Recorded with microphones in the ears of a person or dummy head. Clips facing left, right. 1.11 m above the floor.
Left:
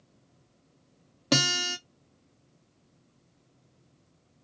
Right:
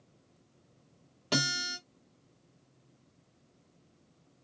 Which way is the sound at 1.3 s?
70° left (ahead or behind).